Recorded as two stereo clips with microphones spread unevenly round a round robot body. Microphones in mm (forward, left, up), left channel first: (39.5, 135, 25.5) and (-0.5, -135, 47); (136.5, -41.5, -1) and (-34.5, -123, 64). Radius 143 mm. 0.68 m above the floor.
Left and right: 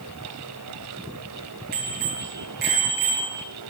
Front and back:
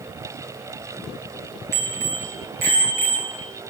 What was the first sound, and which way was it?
A bicycle bell, 160° right.